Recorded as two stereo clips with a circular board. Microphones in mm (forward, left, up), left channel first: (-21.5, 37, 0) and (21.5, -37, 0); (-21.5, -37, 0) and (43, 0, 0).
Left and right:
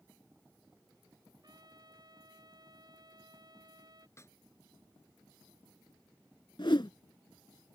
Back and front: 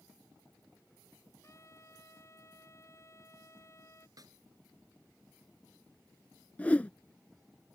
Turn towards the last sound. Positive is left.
turn(degrees=140)